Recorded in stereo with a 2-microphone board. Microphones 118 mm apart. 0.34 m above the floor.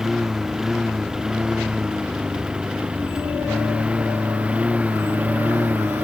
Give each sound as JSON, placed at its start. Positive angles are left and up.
{"t": 0.0, "sound": "a lawn mower", "side_deg": -5}